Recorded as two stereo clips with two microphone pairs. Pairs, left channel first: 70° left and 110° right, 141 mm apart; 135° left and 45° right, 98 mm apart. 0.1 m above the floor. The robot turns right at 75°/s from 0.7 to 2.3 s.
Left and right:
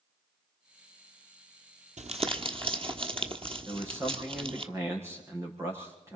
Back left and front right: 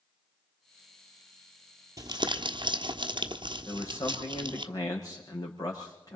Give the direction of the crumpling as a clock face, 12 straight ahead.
3 o'clock.